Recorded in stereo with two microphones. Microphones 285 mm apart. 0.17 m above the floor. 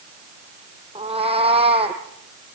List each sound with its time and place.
0.9 s a cat meowing: 20° right (ahead or behind), 2.5 m